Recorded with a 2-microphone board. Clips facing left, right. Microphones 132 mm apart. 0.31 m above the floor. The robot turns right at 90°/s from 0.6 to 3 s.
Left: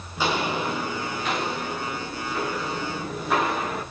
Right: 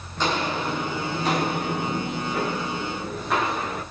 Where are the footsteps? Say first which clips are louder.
Even; 10° left (ahead or behind), 2.5 m; by 3.8 s 5° left (ahead or behind), 6.5 m.